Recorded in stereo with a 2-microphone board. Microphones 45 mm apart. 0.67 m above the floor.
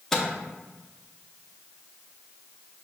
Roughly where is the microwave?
Centre.